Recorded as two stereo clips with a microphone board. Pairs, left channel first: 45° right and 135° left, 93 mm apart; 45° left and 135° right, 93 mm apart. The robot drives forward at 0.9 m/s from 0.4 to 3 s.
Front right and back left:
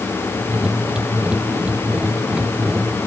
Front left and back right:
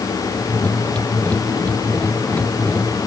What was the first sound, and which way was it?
Only background noise.